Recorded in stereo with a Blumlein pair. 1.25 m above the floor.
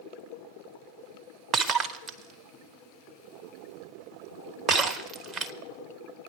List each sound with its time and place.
1.5 s breaking glass: 25° right, 1.0 m